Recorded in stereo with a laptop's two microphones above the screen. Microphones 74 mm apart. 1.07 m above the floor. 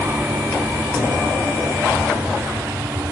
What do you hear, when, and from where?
0.0 s an aircraft: 25° right (ahead or behind); by 3.1 s 45° right (ahead or behind)